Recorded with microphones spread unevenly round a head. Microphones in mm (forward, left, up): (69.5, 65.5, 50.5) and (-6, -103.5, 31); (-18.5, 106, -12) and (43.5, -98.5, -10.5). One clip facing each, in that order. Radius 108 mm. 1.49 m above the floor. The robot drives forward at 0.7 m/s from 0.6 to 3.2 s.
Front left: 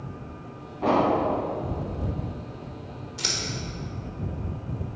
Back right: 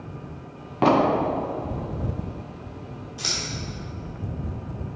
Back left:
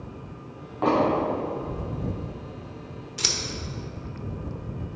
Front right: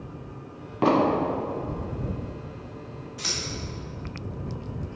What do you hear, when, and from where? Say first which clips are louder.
0.8 s an explosion: back right 3 dB, front right 1 dB; 125° right, 0.8 m; by 1.2 s 140° right, 1.0 m
3.2 s scissors: front left 1 dB, back left 4 dB; 135° left, 1.2 m; by 3.4 s 140° left, 1.2 m